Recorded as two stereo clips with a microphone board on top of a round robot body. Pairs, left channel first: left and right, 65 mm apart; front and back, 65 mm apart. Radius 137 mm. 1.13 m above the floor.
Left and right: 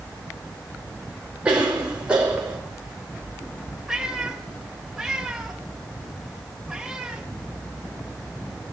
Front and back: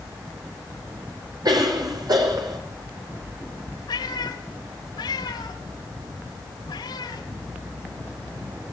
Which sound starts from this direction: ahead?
A cat meowing, at 3.9 s.